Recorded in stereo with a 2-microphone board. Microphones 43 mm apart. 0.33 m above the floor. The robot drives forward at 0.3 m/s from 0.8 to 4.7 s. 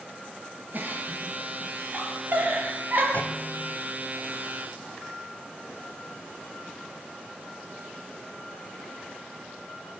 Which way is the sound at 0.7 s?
45° right (ahead or behind).